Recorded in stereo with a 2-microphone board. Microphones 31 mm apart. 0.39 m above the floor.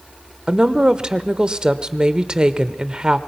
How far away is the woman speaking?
About 0.9 m.